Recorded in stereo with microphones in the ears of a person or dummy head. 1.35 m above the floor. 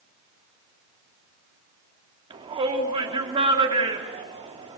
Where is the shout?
30° right (ahead or behind), 3.5 m.